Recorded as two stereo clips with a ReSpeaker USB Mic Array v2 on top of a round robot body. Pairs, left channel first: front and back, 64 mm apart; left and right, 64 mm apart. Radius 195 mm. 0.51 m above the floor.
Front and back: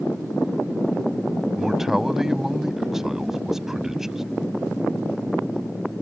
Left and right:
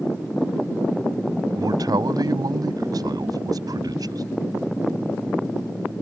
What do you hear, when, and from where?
1.6 s a man speaking: 95° right